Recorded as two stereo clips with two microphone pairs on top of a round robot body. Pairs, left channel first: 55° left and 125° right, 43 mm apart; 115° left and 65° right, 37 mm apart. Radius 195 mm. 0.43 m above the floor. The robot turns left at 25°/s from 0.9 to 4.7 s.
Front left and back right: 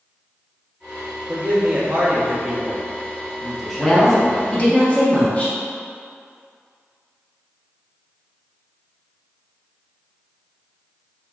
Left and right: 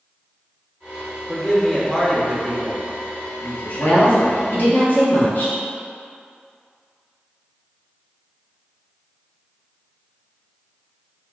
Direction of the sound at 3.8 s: 125° left.